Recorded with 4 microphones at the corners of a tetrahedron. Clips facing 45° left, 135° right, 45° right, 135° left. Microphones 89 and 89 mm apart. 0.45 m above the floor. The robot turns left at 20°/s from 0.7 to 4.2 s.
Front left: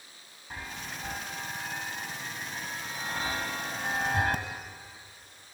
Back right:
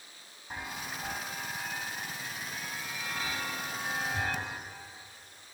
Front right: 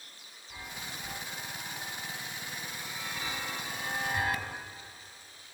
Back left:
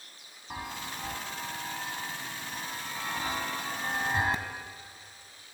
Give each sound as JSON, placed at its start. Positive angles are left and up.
{"t": 0.5, "sound": "a chime", "azimuth_deg": 145, "distance_m": 1.9}